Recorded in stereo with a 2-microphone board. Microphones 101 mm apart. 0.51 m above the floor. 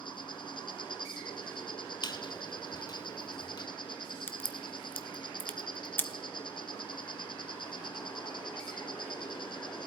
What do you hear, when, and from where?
0.0 s an insect: 55° left (ahead or behind), 1.0 m
2.0 s a squeak: 45° left (ahead or behind), 0.7 m
4.3 s a crack: 20° left (ahead or behind), 0.7 m